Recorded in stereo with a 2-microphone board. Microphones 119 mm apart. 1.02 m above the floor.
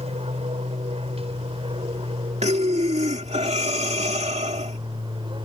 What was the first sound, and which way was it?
An aircraft, 60° right (ahead or behind).